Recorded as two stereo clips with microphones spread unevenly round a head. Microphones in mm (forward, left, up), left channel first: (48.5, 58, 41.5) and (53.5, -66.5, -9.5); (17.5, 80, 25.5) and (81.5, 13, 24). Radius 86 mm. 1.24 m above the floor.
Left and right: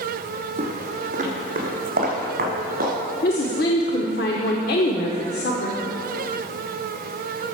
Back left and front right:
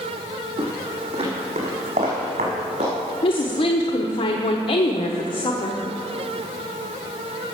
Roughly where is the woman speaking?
Behind left.